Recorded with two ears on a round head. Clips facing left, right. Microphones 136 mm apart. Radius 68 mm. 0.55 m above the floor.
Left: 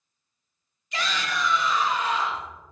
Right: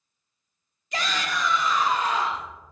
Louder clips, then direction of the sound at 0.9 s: Right 1 dB; 40° right (ahead or behind).